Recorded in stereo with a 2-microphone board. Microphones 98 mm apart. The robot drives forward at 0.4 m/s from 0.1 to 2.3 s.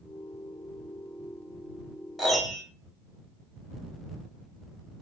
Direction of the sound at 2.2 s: Centre (ahead or behind).